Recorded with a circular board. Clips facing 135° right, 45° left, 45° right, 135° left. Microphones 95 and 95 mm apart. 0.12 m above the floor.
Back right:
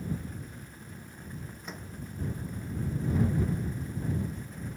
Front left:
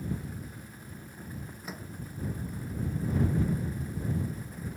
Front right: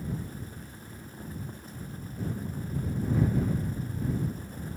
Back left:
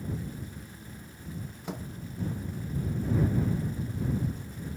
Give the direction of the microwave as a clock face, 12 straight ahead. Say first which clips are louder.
Front left 2 dB, back left 5 dB; 8 o'clock.